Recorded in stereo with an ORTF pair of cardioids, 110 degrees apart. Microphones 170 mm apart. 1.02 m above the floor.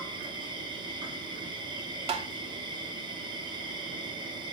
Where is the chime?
No chime in this recording.